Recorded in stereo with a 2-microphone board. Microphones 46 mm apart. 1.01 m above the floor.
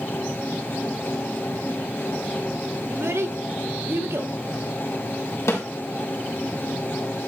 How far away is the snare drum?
About 4 m.